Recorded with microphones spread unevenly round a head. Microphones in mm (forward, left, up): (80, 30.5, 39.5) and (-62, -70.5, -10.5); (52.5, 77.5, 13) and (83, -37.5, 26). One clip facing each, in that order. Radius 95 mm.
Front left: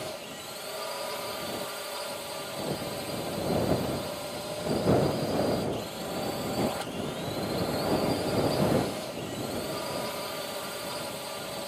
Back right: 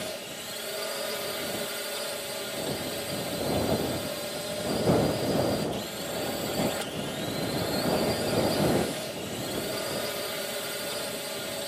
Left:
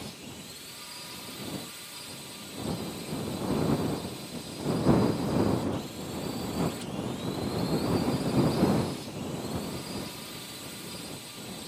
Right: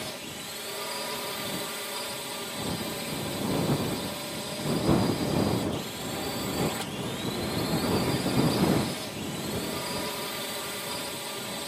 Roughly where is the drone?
Right.